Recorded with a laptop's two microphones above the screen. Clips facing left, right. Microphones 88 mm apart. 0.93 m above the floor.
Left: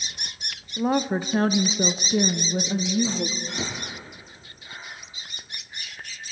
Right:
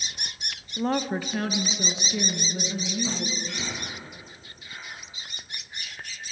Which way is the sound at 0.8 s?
5° left (ahead or behind).